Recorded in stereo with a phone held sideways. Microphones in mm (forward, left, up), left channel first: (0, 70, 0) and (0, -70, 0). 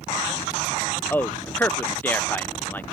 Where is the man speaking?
15° left (ahead or behind).